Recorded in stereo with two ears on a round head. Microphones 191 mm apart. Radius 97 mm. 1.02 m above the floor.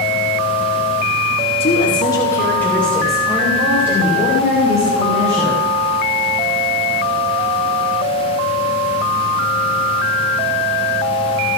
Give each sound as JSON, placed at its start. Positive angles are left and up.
{"t": 1.6, "sound": "a woman speaking", "side_deg": 30, "distance_m": 2.5}